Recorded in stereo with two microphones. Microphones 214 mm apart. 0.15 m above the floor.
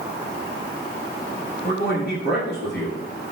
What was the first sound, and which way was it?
A man speaking, 50° left (ahead or behind).